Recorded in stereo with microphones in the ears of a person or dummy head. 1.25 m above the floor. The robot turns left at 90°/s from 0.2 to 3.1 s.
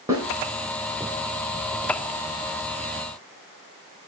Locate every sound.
0.1 s a snare drum: 15° right (ahead or behind), 3 m